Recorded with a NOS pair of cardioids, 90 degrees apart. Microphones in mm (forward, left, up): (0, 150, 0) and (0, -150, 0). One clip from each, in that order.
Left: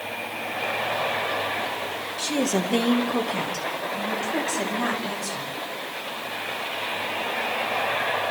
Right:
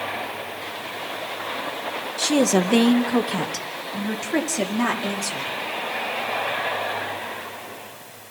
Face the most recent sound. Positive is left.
turn(degrees=-50)